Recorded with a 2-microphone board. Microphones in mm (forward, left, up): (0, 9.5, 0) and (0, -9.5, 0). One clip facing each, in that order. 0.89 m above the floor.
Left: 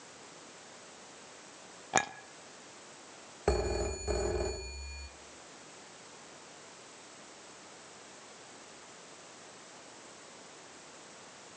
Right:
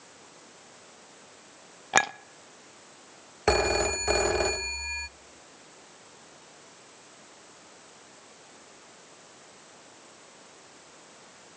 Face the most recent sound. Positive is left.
turn(degrees=-60)  # may be behind; listen again after turning